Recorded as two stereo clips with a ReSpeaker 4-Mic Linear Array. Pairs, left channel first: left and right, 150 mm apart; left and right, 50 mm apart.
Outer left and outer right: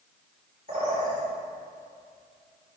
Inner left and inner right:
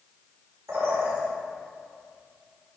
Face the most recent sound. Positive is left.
turn(degrees=-70)  # may be behind; listen again after turning